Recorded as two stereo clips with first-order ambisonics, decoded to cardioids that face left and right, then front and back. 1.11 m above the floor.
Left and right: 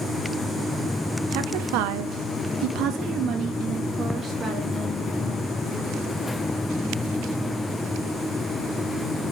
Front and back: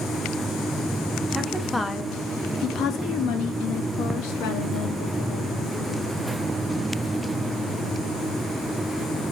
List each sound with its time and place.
1.3 s a woman speaking: 100° right, 1.1 m; by 5.9 s 5° right, 2.5 m